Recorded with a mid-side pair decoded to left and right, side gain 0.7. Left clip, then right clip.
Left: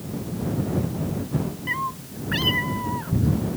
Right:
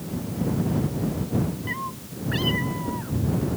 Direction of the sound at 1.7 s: 25° left.